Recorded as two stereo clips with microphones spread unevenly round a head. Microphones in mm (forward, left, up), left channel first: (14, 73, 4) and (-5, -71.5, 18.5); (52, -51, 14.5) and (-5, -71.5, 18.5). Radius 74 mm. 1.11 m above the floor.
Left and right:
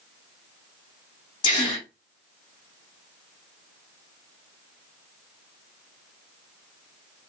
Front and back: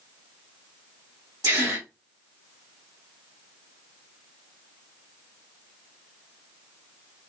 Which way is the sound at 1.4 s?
145° left.